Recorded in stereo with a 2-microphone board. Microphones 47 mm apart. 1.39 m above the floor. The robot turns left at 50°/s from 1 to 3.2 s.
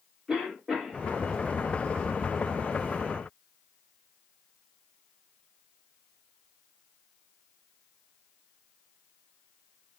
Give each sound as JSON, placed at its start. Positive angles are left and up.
{"t": 0.3, "sound": "a cough", "side_deg": -5, "distance_m": 2.0}